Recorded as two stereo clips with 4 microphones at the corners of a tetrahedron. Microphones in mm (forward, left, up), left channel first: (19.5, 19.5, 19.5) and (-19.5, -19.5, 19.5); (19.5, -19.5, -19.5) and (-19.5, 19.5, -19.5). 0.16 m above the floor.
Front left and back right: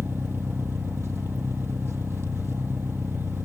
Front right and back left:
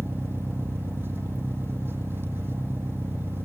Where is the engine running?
Straight behind, 2.0 m.